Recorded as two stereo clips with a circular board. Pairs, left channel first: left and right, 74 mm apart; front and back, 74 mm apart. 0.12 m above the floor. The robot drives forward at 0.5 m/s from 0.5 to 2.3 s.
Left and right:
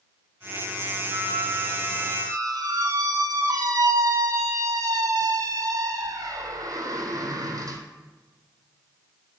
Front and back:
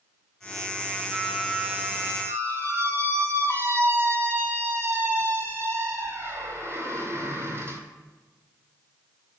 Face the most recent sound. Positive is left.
turn(degrees=-125)